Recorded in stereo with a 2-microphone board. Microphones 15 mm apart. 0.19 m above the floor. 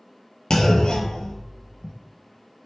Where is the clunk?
70° left (ahead or behind), 0.6 m.